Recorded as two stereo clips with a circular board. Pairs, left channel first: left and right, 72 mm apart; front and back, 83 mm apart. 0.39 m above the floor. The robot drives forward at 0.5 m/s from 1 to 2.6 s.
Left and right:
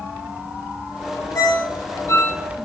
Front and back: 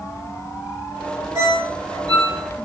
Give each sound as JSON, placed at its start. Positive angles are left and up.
{"t": 1.4, "sound": "a ringtone", "azimuth_deg": 130, "distance_m": 0.8}